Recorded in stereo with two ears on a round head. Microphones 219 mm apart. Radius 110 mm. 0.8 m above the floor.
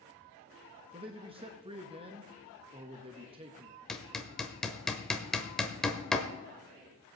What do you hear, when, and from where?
0.9 s a man speaking: 25° right (ahead or behind), 0.8 m
3.9 s hammering: centre (ahead or behind), 1.0 m